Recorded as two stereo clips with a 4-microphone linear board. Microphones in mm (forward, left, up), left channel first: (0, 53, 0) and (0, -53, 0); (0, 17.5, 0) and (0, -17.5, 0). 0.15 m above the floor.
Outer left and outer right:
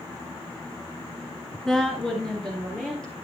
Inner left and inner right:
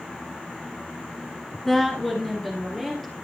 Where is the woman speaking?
5° left (ahead or behind), 1.6 m.